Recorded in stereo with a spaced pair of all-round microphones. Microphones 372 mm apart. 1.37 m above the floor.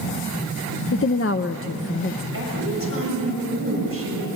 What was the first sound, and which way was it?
A woman speaking, 35° left (ahead or behind).